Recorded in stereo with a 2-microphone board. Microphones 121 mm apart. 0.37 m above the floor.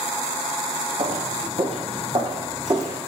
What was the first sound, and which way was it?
Footsteps, 60° right (ahead or behind).